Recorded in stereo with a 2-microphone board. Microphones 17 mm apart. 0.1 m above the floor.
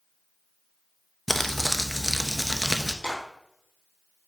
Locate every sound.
1.3 s crumpling: 5° left (ahead or behind), 0.5 m
3.0 s a clap: 25° left (ahead or behind), 3.5 m